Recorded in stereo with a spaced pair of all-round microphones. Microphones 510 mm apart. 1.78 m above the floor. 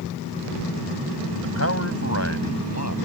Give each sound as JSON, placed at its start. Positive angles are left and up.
{"t": 1.4, "sound": "a man speaking", "side_deg": 25}